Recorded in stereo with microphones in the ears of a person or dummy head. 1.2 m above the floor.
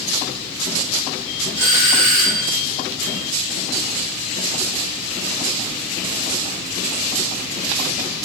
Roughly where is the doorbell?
Left.